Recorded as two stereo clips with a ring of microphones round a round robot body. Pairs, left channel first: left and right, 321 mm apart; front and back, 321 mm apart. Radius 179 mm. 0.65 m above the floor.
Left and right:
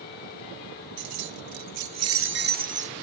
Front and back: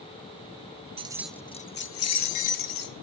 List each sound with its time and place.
1.0 s keys jangling: 105° right, 0.8 m; by 2.9 s 20° right, 1.2 m